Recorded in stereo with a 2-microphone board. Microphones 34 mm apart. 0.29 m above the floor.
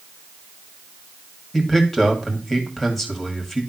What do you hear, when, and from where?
1.5 s a man speaking: 10° left (ahead or behind), 2 m